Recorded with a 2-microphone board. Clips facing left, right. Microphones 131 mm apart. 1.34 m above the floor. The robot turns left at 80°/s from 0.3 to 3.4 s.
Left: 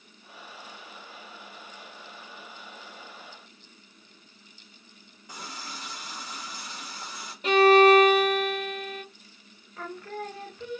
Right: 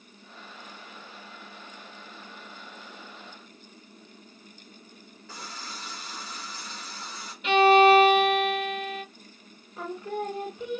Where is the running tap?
15° left (ahead or behind), 1.8 m.